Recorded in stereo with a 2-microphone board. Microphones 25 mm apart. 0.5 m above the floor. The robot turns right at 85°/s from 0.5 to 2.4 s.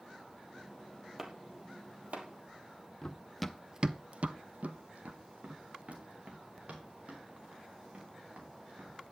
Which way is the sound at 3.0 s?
25° left (ahead or behind).